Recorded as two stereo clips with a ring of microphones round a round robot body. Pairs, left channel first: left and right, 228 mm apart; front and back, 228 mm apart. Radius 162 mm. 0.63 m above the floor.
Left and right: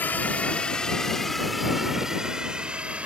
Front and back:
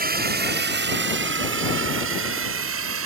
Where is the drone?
170° left; by 3.1 s 175° right.